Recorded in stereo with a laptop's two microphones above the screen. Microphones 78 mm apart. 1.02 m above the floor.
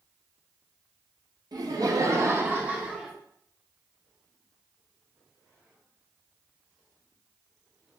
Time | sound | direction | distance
1.5 | laughter | 60° right (ahead or behind) | 1.0 m